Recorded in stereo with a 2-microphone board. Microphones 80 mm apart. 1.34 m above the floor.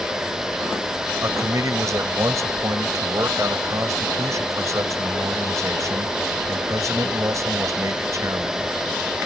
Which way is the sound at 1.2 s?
40° right (ahead or behind).